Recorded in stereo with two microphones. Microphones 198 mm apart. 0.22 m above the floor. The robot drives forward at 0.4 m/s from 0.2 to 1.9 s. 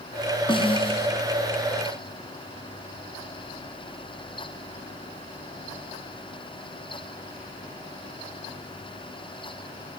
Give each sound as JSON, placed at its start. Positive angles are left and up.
{"t": 0.5, "sound": "a snare drum", "side_deg": 25, "distance_m": 1.8}